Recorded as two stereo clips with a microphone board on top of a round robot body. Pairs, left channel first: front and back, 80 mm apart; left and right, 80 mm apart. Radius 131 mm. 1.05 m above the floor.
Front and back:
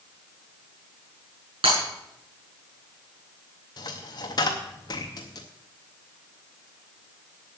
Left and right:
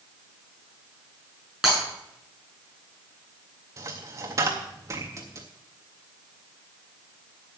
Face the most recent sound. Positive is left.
turn(degrees=-40)